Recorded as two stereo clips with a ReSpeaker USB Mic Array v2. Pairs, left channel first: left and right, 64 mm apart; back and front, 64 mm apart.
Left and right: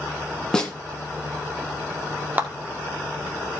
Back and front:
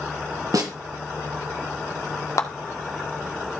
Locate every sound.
0.5 s a snare drum: 10° left, 1.8 m
2.4 s a clap: 150° right, 1.5 m